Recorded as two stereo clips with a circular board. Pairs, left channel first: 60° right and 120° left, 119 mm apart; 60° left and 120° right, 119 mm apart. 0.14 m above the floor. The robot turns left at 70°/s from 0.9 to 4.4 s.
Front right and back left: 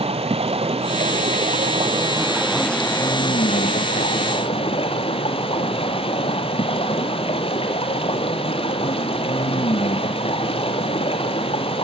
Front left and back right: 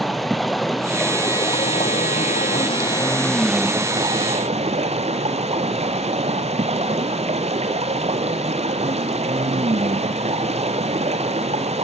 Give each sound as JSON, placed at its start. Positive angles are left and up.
{"t": 0.0, "sound": "running water", "azimuth_deg": 150, "distance_m": 0.9}